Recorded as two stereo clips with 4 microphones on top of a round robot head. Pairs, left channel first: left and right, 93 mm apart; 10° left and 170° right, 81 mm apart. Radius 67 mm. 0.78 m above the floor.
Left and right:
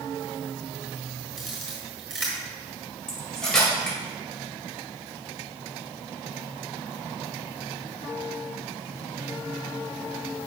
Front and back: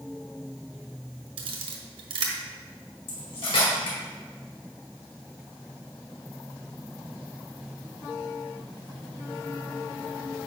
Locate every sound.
1.4 s a camera shutter: straight behind, 1.2 m
3.1 s cutlery clinking: 5° left, 2.5 m